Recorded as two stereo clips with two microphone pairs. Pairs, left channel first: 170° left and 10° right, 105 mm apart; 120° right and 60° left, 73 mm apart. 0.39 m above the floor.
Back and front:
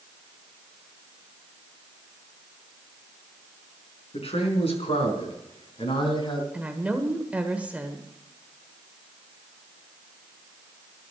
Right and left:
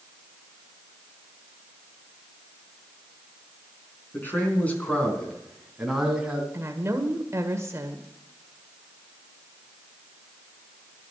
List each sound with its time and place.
4.1 s a man speaking: straight behind, 4 m; by 6.4 s 135° left, 3 m
6.5 s a woman speaking: 60° left, 1.4 m